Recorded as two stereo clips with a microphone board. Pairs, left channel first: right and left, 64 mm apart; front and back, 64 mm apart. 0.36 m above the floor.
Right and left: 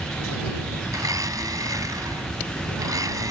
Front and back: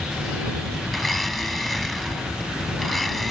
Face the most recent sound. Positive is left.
turn(degrees=90)